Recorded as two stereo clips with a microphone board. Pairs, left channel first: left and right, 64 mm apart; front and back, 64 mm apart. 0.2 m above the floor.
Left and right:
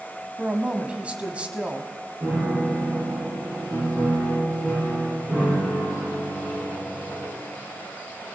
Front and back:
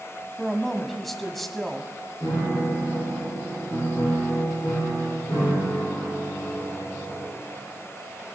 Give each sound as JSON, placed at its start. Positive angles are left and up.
{"t": 0.4, "sound": "a woman speaking", "azimuth_deg": -85, "distance_m": 1.1}
{"t": 2.2, "sound": "a piano", "azimuth_deg": -35, "distance_m": 7.0}